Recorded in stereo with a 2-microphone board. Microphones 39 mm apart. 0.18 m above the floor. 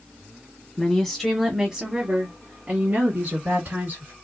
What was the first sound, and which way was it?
A woman speaking, 15° left (ahead or behind).